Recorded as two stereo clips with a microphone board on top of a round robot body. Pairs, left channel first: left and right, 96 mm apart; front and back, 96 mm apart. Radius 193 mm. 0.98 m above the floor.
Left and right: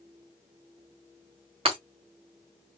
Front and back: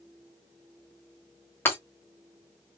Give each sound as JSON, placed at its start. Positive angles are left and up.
{"t": 1.6, "sound": "breaking glass", "azimuth_deg": -70, "distance_m": 1.4}